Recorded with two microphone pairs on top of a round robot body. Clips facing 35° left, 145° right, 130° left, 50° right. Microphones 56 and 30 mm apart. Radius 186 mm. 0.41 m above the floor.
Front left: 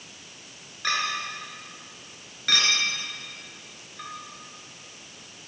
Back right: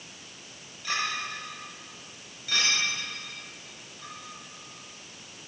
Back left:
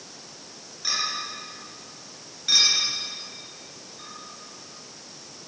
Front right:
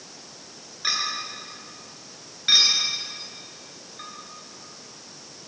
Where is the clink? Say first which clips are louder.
Front left 3 dB, front right 1 dB; 5° left, 7 m.